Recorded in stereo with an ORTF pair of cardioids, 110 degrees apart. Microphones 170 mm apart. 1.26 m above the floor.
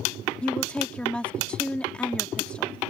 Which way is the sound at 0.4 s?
5° left.